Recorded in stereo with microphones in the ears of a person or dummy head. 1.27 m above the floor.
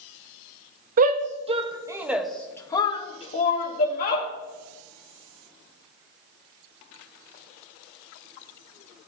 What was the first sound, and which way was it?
A shout, 45° right (ahead or behind).